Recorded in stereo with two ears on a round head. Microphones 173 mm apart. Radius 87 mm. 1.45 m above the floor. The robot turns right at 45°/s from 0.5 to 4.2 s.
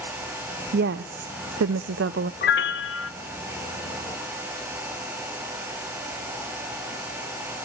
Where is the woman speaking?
125° right, 0.5 m; by 2.3 s 55° right, 0.5 m.